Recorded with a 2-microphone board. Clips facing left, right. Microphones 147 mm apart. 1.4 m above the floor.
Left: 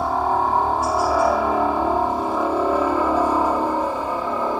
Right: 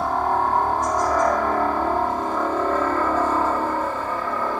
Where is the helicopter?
5° left (ahead or behind); by 4.6 s 15° left (ahead or behind).